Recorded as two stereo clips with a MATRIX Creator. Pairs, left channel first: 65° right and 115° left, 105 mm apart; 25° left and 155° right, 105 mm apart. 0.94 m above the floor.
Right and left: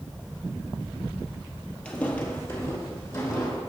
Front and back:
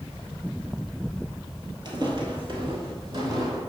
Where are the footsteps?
140° right, 1.3 m; by 3.6 s 120° right, 2 m.